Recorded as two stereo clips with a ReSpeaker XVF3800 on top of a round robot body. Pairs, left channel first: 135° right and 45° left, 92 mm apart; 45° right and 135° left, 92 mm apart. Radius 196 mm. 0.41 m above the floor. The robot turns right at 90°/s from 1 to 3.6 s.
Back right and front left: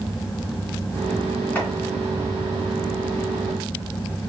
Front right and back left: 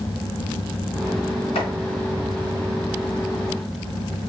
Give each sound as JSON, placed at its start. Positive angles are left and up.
{"t": 1.6, "sound": "chopping", "azimuth_deg": -65, "distance_m": 2.5}